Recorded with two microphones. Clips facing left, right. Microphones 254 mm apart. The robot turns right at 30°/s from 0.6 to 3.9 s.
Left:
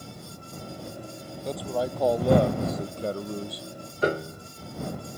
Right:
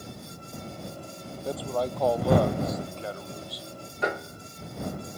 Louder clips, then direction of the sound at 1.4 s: Even; 5° right.